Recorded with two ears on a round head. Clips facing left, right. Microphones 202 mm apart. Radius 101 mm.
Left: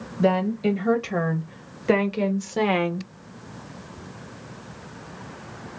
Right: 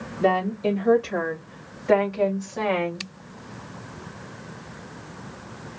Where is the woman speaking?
35° left (ahead or behind), 2 m; by 3.1 s 50° left (ahead or behind), 0.8 m.